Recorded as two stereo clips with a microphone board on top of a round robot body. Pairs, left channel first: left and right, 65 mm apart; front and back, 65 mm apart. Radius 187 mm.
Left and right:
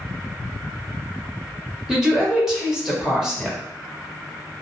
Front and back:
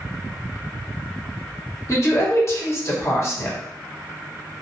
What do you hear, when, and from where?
1.9 s a woman speaking: 10° right, 1.8 m